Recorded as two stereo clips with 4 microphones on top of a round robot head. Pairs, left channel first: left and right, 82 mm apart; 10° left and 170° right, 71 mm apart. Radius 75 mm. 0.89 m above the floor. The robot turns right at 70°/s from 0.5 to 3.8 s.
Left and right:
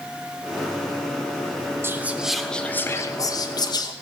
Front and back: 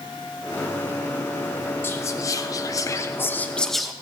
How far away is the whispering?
About 1.0 m.